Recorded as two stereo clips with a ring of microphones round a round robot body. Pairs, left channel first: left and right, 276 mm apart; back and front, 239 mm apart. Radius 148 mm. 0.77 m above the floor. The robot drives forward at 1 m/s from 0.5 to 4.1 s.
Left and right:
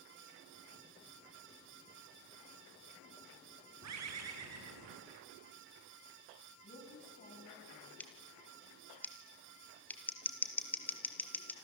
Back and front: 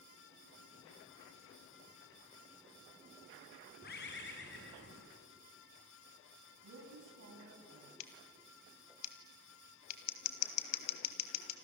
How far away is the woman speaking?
About 6 m.